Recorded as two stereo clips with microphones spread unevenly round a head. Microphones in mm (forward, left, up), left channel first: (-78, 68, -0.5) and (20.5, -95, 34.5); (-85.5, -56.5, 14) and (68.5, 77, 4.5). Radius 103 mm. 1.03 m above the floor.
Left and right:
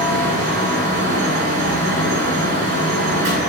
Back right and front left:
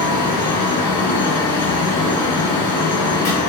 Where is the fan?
70° right, 2 m.